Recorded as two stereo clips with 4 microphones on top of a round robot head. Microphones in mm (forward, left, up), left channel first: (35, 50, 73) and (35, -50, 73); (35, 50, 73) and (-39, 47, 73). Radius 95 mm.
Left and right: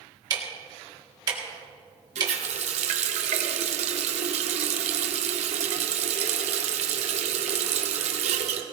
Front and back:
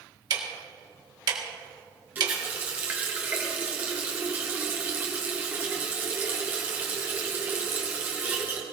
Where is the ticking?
145° right, 1.9 m.